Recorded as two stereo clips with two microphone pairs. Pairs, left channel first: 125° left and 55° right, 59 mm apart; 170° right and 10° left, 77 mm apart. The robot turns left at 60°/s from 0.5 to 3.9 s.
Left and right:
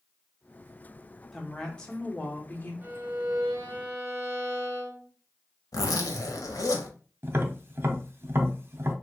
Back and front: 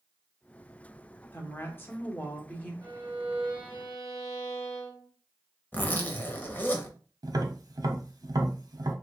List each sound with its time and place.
1.3 s a woman speaking: 145° right, 0.7 m; by 2.7 s 130° left, 0.7 m
2.8 s a violin: 20° right, 1.3 m; by 5.1 s 85° right, 1.3 m
5.7 s a zipper: 125° left, 0.6 m
7.2 s tapping: 15° right, 0.6 m